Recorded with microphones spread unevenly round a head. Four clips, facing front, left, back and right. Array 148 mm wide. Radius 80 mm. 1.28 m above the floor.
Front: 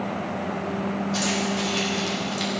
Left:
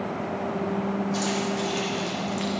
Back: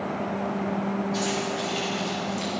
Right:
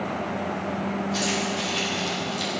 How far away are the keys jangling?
About 3 m.